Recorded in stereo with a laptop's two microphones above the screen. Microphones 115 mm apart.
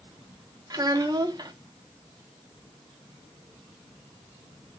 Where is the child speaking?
35° right (ahead or behind), 1.0 m.